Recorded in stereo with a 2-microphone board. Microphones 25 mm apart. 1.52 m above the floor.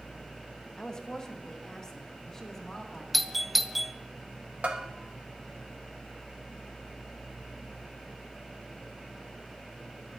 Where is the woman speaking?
35° left (ahead or behind), 1.7 m; by 3.0 s 20° left (ahead or behind), 3 m.